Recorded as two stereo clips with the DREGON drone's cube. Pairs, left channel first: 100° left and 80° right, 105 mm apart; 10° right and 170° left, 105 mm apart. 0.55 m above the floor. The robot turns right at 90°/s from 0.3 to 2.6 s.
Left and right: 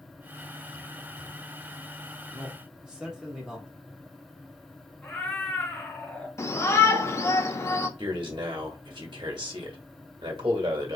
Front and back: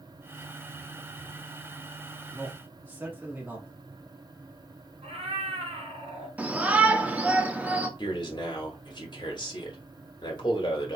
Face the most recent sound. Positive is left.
turn(degrees=-50)